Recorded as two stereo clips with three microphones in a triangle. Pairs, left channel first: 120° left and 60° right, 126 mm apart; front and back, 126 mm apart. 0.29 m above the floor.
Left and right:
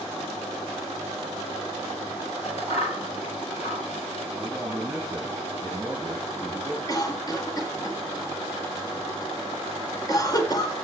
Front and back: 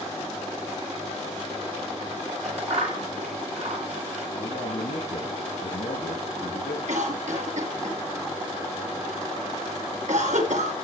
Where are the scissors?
150° left, 9 m.